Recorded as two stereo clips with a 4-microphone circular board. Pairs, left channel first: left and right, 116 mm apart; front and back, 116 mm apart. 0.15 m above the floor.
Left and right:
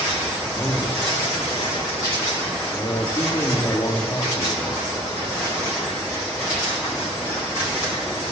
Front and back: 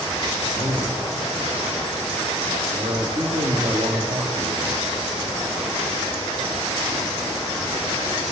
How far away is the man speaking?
About 3.5 m.